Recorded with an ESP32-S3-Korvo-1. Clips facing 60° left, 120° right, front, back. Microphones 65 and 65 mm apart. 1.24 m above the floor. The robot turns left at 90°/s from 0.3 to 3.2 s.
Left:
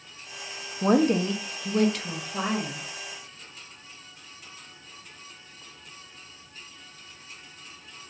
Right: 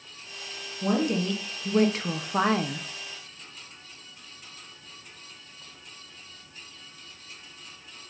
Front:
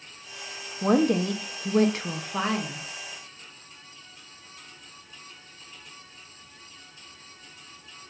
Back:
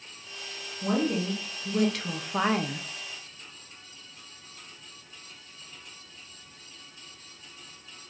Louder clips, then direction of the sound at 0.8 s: Left 4 dB, front 5 dB; 40° left.